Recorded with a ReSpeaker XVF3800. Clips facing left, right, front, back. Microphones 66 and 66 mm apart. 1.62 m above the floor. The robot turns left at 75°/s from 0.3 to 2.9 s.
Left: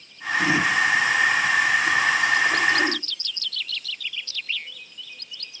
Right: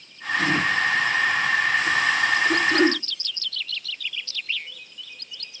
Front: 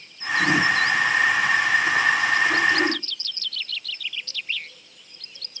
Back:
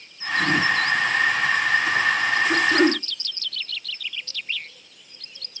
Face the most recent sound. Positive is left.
turn(degrees=-140)